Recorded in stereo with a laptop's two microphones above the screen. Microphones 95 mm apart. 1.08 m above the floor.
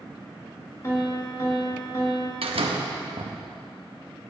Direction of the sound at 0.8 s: 30° left (ahead or behind).